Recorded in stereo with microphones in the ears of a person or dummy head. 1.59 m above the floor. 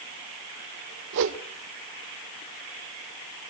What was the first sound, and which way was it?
A whoosh, 70° right (ahead or behind).